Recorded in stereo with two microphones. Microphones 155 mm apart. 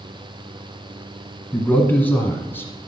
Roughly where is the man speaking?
Centre.